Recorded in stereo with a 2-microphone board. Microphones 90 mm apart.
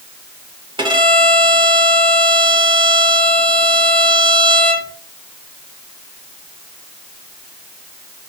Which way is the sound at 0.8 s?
60° right (ahead or behind).